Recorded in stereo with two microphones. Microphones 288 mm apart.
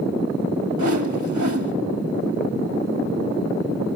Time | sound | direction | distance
0.8 | a whoosh | 75° right (ahead or behind) | 1.3 m